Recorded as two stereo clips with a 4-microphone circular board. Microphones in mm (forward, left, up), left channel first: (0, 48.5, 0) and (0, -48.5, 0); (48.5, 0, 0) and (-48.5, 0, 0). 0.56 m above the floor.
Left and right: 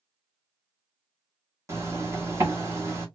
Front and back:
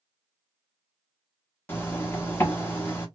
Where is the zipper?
50° right, 1.2 m.